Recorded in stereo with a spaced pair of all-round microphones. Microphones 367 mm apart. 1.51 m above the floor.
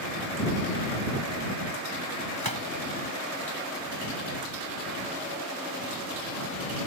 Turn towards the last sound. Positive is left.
turn(degrees=-90)